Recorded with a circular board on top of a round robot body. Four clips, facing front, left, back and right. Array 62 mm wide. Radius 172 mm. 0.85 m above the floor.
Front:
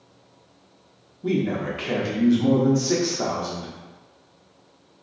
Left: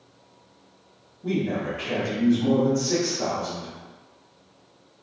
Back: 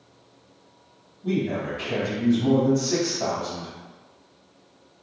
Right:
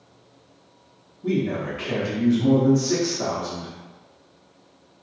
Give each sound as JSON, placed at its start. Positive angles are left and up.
{"t": 1.2, "sound": "a man speaking", "azimuth_deg": -10, "distance_m": 1.1}